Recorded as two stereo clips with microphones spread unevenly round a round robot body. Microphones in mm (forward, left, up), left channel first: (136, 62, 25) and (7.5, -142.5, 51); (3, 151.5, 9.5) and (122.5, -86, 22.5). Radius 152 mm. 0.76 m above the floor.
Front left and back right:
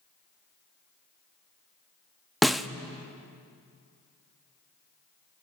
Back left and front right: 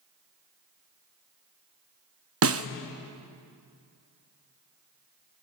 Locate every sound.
2.4 s a snare drum: 30° right, 0.8 m